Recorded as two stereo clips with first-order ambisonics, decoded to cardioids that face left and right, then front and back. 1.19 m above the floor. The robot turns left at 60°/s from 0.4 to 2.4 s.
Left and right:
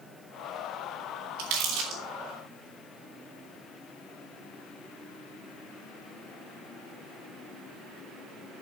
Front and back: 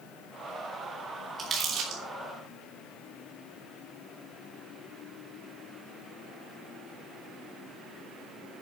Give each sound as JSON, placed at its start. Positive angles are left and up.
{"t": 1.4, "sound": "crumpling", "azimuth_deg": -110, "distance_m": 4.0}